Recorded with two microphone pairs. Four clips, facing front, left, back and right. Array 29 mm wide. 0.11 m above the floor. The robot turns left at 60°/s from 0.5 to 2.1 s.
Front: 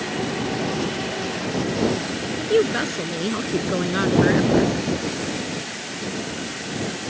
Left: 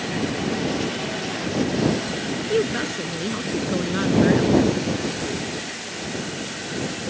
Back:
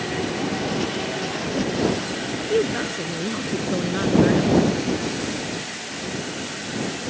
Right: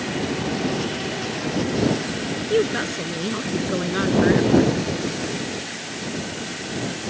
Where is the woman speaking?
10° right.